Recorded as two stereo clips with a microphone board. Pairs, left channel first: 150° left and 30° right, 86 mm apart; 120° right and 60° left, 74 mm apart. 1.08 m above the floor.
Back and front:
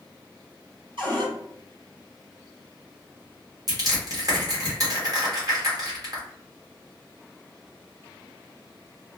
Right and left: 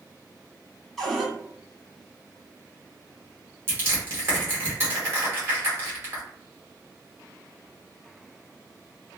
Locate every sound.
1.0 s a cupboard door: 30° right, 1.6 m
3.7 s crushing: 10° left, 1.3 m